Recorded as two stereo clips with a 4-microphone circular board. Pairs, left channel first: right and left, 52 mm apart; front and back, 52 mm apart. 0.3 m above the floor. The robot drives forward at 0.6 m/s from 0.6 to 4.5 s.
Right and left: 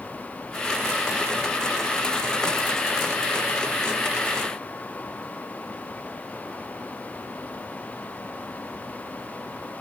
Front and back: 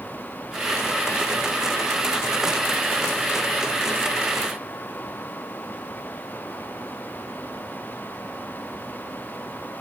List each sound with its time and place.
Only background noise.